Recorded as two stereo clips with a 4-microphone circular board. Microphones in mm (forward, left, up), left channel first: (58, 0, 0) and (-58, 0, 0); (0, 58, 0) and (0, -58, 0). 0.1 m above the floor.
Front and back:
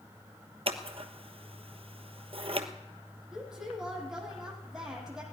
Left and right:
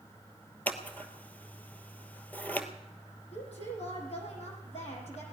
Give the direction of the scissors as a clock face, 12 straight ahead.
7 o'clock.